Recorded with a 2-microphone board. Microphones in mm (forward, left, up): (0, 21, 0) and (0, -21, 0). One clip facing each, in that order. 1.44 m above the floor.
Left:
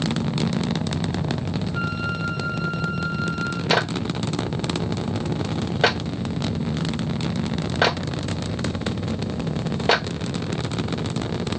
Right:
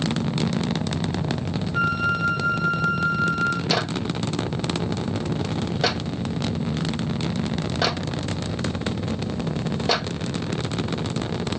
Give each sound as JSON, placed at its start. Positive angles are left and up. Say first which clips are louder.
{"t": 1.7, "sound": "a flute", "louder": "right 8 dB", "side_deg": -60, "distance_m": 3.5}
{"t": 3.7, "sound": "a clap", "louder": "left 2 dB", "side_deg": 35, "distance_m": 1.7}